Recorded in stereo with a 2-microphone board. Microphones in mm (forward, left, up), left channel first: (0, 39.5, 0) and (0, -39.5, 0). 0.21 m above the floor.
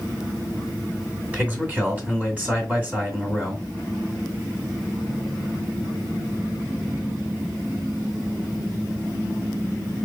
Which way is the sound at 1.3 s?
25° right (ahead or behind).